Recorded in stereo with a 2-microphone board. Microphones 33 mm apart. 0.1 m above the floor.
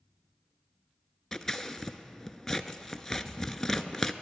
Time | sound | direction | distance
1.3 | scissors | 10° left (ahead or behind) | 0.5 m